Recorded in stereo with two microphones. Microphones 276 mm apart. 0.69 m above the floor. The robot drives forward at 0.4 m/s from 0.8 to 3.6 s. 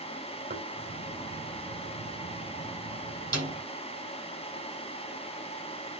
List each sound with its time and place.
0.5 s knocking: 35° right (ahead or behind), 3 m
3.3 s a snare drum: 70° right (ahead or behind), 7 m